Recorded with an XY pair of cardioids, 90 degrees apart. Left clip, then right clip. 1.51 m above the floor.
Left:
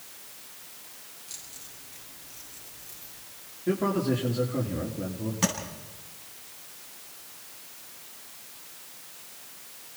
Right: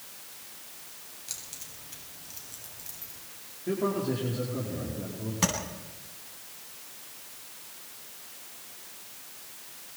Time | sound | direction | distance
1.3 | keys jangling | 60° right | 7.5 m
3.7 | a man speaking | 35° left | 4.5 m
5.4 | tapping | 15° right | 9.5 m